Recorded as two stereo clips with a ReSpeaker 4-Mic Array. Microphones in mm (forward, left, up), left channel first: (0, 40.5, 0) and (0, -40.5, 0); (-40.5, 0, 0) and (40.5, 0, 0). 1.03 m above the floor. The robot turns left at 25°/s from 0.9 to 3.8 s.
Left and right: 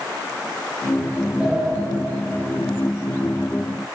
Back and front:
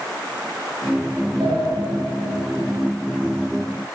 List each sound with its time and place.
1.4 s a sliding door: 15° right, 5 m; by 1.7 s 20° right, 5 m